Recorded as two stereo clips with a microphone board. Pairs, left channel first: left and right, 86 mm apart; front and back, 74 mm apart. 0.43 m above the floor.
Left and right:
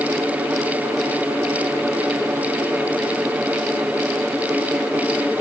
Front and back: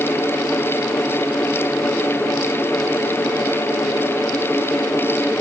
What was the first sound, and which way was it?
Only background noise.